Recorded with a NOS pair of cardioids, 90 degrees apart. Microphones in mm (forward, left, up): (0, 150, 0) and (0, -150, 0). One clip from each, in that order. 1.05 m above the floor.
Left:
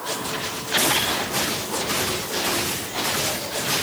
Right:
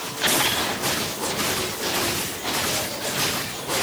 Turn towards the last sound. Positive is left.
No sound to turn to.